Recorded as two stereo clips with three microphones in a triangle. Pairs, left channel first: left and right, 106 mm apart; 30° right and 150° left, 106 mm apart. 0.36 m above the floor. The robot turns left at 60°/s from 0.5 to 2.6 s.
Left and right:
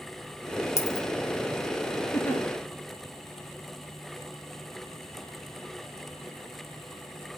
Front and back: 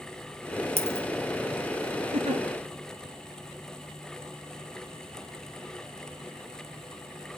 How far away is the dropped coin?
About 1.2 m.